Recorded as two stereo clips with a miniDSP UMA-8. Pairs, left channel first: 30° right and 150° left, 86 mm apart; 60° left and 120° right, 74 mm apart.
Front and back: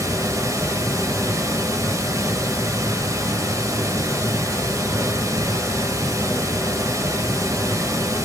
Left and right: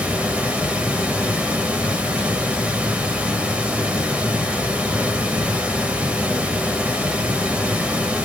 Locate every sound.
0.0 s running water: 175° left, 1.0 m